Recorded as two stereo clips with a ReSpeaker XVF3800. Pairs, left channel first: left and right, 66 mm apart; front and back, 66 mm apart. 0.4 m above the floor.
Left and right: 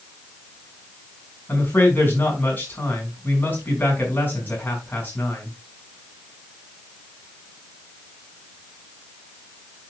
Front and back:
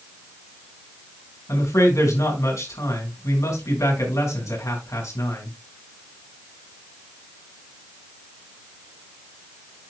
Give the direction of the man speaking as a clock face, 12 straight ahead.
11 o'clock.